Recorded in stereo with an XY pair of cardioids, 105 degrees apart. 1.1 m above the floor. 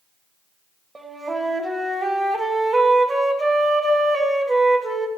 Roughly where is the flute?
Ahead.